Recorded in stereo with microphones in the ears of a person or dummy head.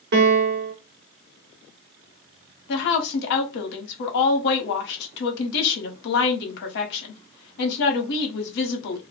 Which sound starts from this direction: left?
A woman speaking, at 2.7 s.